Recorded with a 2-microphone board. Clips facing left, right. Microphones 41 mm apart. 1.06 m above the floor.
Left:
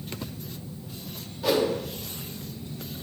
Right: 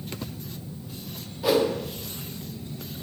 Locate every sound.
1.4 s a whoosh: 5° right (ahead or behind), 0.5 m